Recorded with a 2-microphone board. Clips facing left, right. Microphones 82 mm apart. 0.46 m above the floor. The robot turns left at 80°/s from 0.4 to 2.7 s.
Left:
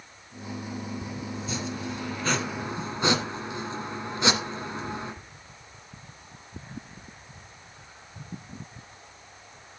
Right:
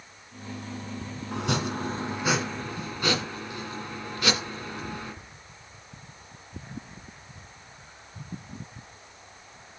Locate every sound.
1.3 s chopping: 90° right, 1.6 m; by 5.1 s 155° left, 1.6 m